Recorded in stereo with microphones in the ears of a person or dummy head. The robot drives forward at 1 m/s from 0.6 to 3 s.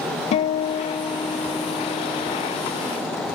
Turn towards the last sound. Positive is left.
turn(degrees=5)  # may be behind; listen again after turning